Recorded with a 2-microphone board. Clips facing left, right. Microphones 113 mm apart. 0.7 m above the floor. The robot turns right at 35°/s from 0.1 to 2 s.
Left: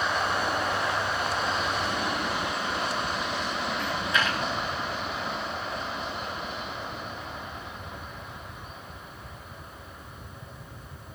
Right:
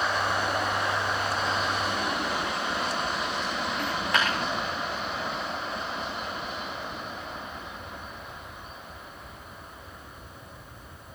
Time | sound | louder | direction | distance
3.8 | a dropped coin | right 1 dB | 65° right (ahead or behind) | 7 m